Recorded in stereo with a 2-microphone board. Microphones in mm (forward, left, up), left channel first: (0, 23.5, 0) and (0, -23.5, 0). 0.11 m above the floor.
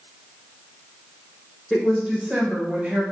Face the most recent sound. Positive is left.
turn(degrees=-30)  # may be behind; listen again after turning